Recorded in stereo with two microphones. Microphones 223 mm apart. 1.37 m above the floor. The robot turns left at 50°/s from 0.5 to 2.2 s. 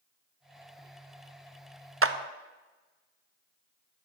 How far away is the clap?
About 0.6 m.